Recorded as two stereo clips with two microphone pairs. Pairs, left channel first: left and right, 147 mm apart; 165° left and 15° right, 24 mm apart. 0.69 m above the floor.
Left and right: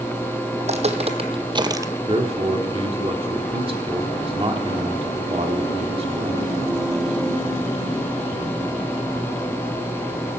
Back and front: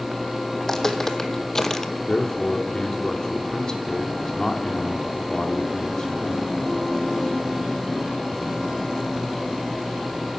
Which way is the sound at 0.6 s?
120° right.